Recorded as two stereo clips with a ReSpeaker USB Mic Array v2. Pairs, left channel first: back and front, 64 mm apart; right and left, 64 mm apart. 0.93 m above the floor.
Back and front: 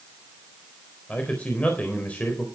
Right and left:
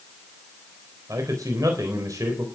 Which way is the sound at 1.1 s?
115° left.